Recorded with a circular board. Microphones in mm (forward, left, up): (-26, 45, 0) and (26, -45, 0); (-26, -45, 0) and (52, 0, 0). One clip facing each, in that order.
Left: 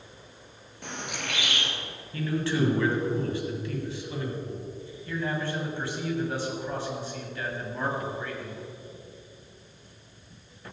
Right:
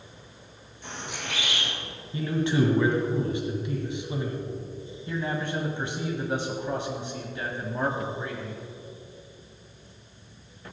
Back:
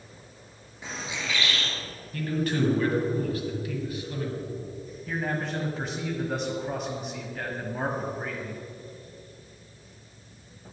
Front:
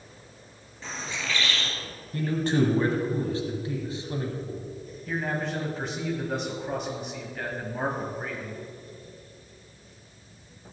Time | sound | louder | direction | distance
0.8 | a bird | left 1 dB, even | 135° left | 2.5 m
2.1 | a man speaking | right 2 dB, front 3 dB | 5° right | 1.8 m
5.1 | a man speaking | even, front 1 dB | 60° right | 1.2 m